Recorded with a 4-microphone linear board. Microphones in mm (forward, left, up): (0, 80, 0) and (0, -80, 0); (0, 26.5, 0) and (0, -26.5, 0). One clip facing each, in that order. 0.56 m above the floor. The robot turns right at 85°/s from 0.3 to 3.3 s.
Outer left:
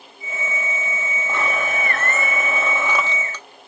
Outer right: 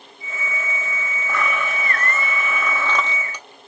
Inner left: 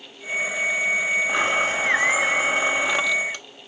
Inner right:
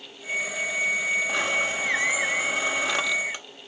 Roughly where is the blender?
Ahead left.